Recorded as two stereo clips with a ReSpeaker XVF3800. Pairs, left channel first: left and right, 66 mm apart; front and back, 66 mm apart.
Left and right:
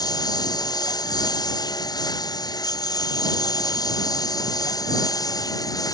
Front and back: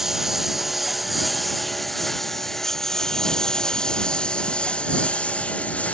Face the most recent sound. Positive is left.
turn(degrees=70)